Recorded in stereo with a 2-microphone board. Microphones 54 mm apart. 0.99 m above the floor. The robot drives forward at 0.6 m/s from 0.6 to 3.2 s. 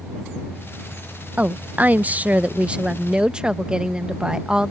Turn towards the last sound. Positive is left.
turn(degrees=-15)  # may be behind; listen again after turning